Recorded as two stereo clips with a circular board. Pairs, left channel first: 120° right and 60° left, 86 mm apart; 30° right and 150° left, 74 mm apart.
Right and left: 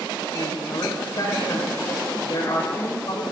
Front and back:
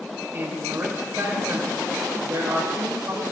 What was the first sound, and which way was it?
A man speaking, 160° right.